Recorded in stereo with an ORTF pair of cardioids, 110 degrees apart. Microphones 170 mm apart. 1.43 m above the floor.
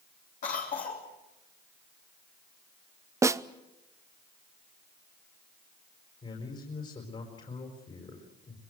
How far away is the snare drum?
About 0.7 m.